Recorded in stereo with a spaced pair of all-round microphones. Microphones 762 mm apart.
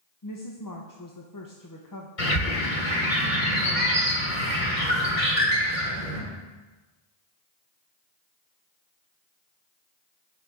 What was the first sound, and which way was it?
A woman speaking, 30° left (ahead or behind).